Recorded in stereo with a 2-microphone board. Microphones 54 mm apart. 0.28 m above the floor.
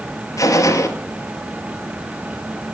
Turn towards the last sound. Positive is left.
turn(degrees=80)